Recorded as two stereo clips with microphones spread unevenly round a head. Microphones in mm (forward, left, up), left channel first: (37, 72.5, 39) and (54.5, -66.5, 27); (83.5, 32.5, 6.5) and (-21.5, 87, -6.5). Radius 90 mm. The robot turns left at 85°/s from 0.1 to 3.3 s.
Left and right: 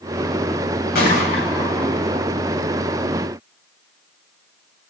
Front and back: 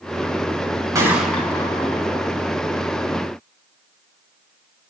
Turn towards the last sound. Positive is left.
turn(degrees=-110)